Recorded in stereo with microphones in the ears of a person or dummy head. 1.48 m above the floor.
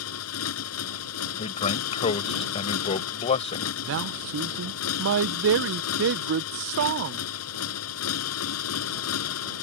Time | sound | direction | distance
0.0 | a motorcycle | 75° left (ahead or behind) | ?
1.4 | a man speaking | 35° left (ahead or behind) | ?
3.8 | a man speaking | 70° right (ahead or behind) | ?